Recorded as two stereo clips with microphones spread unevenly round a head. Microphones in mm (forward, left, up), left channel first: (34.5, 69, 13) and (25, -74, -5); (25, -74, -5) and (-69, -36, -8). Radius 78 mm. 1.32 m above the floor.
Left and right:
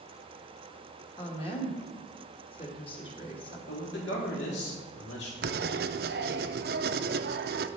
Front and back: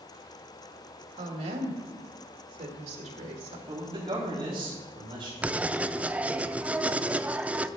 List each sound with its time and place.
1.2 s a woman speaking: 145° left, 1.8 m
3.7 s a man speaking: 100° left, 3.5 m
5.4 s writing: 125° right, 0.5 m